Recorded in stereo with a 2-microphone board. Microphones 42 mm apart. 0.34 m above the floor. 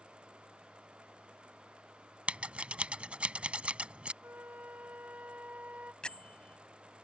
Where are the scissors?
30° right (ahead or behind).